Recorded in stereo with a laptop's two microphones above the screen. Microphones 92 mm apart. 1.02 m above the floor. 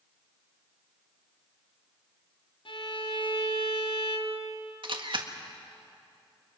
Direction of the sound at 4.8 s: 60° right (ahead or behind).